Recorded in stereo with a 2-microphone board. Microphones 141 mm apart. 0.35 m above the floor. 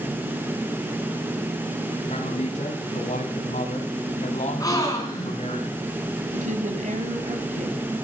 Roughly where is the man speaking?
Left.